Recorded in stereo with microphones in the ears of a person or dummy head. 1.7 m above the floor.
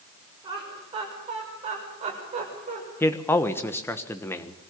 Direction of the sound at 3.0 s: 15° left (ahead or behind).